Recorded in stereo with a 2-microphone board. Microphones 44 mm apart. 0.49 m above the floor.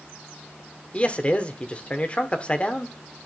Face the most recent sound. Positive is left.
turn(degrees=30)  # may be behind; listen again after turning